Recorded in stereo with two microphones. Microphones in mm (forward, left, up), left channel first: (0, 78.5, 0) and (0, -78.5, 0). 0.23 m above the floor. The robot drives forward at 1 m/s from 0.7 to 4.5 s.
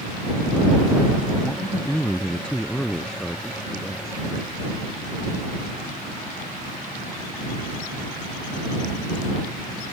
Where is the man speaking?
10° left (ahead or behind); by 4.2 s 5° left (ahead or behind).